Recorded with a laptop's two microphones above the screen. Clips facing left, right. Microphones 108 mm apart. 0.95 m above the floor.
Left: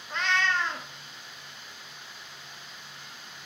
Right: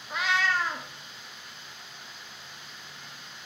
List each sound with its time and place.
0.1 s a cat meowing: 5° right (ahead or behind), 0.5 m